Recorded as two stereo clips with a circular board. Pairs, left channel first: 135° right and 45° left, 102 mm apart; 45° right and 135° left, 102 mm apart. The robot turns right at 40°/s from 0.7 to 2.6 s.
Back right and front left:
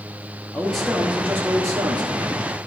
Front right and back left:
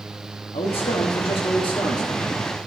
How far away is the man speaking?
About 1.1 m.